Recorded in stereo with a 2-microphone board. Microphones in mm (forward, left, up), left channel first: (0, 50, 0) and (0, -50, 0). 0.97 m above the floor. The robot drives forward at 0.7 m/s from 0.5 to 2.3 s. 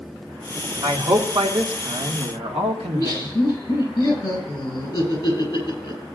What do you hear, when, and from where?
0.8 s a man speaking: 65° right (ahead or behind), 2 m; by 3.3 s 80° right, 2 m
2.8 s laughter: 35° left (ahead or behind), 6.5 m